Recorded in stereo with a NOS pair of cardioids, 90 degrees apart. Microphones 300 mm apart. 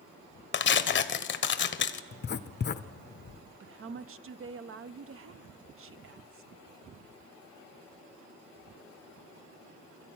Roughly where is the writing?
Ahead left.